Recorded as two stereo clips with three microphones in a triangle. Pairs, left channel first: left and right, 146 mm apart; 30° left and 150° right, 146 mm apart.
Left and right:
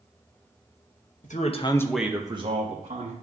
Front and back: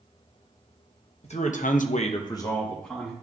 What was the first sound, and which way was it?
A man speaking, 70° left.